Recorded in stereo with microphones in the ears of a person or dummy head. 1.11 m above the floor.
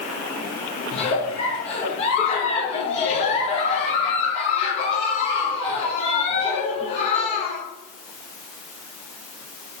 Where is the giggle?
35° left (ahead or behind), 0.7 m.